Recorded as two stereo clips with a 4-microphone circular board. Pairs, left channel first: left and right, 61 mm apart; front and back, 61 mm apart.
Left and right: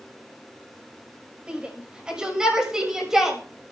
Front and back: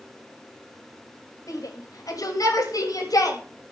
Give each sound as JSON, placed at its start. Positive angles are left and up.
{"t": 1.5, "sound": "a shout", "azimuth_deg": -15, "distance_m": 6.0}